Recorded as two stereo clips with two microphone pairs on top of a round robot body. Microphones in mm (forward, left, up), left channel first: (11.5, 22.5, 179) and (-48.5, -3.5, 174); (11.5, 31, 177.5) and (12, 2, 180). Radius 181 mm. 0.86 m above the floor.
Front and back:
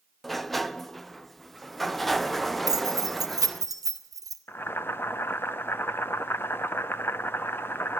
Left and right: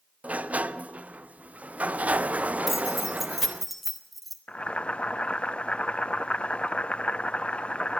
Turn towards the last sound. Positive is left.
turn(degrees=70)